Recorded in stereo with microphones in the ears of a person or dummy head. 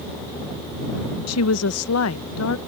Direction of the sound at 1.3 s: 80° left.